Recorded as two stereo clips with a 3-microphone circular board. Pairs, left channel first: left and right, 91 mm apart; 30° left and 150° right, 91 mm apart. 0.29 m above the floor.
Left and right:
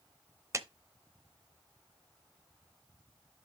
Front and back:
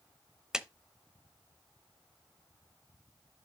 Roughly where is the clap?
Right.